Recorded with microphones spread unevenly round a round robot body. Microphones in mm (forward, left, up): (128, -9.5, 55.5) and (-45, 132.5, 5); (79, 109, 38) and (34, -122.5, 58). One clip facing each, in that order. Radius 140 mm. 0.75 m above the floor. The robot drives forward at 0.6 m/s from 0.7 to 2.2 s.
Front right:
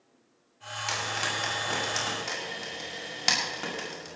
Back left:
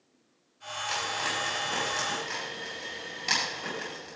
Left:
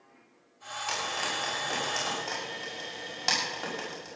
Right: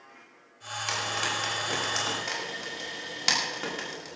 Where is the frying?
40° right, 6.5 m; by 4.2 s 45° right, 6 m.